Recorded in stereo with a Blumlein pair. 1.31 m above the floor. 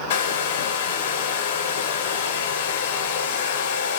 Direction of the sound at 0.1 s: 55° left.